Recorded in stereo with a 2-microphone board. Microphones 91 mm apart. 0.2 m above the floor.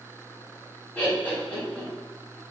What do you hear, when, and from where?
0.9 s laughter: 15° left (ahead or behind), 1.5 m